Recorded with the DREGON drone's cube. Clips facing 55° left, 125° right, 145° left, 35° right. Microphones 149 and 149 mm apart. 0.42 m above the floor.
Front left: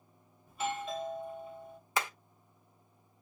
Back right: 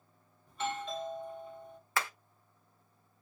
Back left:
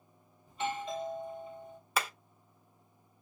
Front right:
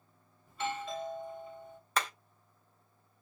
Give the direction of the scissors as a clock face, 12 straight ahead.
I don't hear scissors.